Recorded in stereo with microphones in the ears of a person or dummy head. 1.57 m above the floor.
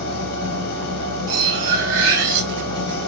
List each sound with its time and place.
0.0 s a machine running: 50° left (ahead or behind), 0.8 m
1.3 s cutlery clinking: 60° right (ahead or behind), 1.6 m